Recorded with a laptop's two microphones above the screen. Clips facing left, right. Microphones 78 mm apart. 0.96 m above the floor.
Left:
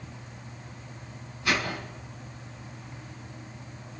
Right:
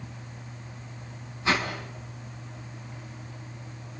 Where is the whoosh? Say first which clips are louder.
Right 1 dB; 25° right (ahead or behind), 5.5 m.